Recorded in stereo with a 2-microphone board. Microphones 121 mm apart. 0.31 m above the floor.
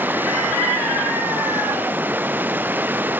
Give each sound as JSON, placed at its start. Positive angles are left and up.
{"t": 0.0, "sound": "running water", "side_deg": -15}